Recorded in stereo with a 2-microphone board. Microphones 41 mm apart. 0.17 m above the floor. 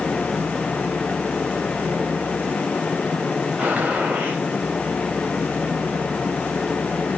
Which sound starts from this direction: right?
A gunshot, at 3.6 s.